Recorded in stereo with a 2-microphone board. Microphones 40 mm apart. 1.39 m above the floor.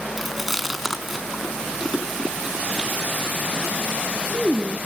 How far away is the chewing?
About 3.5 m.